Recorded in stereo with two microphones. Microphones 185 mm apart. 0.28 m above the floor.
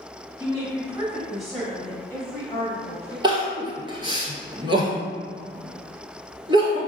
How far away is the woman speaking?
About 1.3 m.